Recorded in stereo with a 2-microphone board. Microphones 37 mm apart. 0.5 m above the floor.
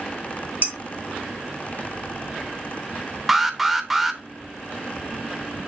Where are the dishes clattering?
50° right (ahead or behind), 1.9 m.